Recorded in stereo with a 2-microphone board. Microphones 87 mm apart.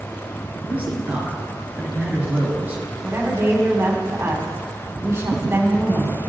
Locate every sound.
0.7 s a man speaking: 20° right (ahead or behind), 2.5 m
3.0 s a woman speaking: 30° right (ahead or behind), 1.9 m